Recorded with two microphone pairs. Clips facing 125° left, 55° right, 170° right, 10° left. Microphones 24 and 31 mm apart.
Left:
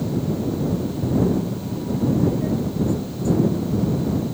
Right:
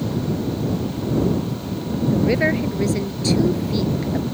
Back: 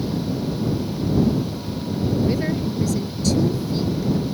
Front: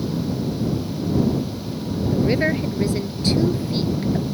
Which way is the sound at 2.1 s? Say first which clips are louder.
Right 6 dB, front 3 dB; 45° right.